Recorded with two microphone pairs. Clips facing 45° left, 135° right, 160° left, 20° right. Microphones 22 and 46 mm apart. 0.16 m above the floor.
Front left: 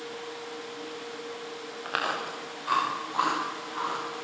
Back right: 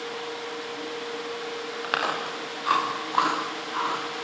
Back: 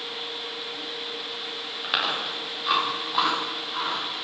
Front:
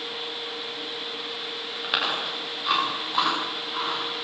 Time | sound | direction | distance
1.8 | chewing | 110° right | 8.5 m